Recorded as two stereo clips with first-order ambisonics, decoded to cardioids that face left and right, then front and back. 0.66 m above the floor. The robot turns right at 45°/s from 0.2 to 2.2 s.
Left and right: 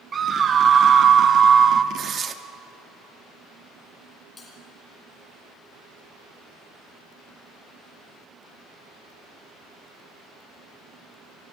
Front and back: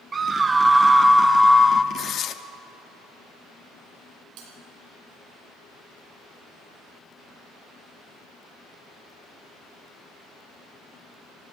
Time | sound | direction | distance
0.1 | a scream | 130° right | 0.5 m
1.9 | tearing paper | 50° right | 0.7 m
4.4 | a bell | 160° left | 4 m